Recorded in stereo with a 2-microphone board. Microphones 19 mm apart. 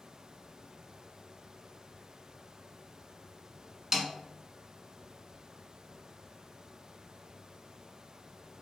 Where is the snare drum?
25° right (ahead or behind), 0.6 m.